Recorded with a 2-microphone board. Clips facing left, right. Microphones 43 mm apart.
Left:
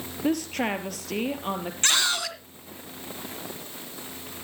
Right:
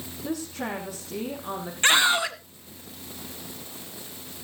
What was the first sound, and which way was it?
A woman speaking, 60° left (ahead or behind).